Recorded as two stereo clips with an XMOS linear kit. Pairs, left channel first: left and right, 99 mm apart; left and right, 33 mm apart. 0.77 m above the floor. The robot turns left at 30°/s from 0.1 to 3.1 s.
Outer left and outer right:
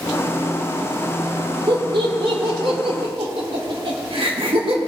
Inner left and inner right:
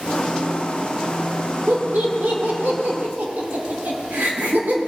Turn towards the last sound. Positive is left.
turn(degrees=-70)  # may be behind; listen again after turning